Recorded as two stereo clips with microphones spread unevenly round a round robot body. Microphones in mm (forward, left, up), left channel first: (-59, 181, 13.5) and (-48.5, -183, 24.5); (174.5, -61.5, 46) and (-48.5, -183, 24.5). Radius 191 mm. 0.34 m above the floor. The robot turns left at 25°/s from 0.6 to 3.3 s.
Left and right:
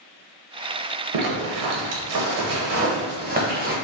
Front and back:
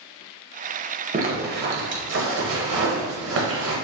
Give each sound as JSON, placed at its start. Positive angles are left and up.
{"t": 1.1, "sound": "a zipper", "azimuth_deg": -100, "distance_m": 1.2}